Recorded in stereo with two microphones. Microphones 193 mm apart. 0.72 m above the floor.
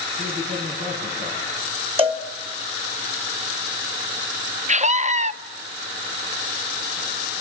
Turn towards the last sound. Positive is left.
turn(degrees=-35)  # may be behind; listen again after turning